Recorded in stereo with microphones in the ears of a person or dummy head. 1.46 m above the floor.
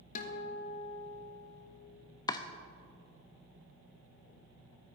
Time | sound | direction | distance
0.1 | a guitar | 45° left (ahead or behind) | 1.4 m
2.3 | chopping | 20° left (ahead or behind) | 0.6 m